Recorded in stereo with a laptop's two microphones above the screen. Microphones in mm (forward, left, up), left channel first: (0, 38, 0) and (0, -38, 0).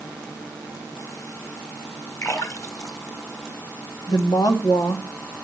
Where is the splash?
45° left (ahead or behind), 2.5 m.